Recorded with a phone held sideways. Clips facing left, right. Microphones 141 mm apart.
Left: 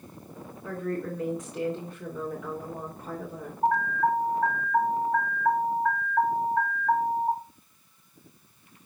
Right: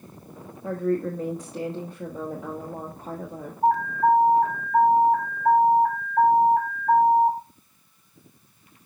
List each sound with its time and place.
0.6 s a woman speaking: 35° right (ahead or behind), 1.2 m
3.6 s an alarm: 50° right (ahead or behind), 4.5 m